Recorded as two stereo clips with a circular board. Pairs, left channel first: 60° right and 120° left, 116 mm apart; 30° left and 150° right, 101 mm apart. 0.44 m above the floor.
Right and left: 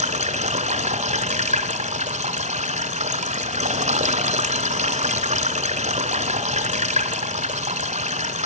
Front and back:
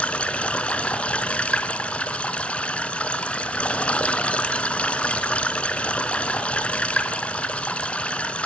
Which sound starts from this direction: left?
Running water, at 0.0 s.